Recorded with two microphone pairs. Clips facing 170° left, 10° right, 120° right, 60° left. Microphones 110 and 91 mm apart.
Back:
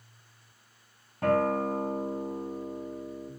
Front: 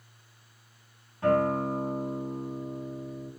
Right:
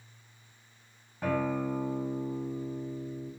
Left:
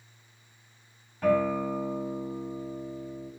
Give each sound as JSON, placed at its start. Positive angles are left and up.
{"t": 1.2, "sound": "a guitar", "azimuth_deg": 155, "distance_m": 3.0}